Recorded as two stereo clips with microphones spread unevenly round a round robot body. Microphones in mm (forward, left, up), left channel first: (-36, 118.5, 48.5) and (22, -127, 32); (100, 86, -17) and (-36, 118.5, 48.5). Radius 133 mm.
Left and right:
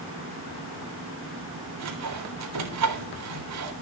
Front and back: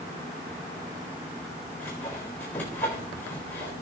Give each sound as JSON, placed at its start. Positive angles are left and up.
{"t": 1.8, "sound": "sawing", "azimuth_deg": -90, "distance_m": 3.5}